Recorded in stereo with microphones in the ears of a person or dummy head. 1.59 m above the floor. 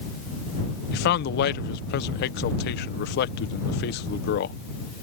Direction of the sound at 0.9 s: 60° left (ahead or behind).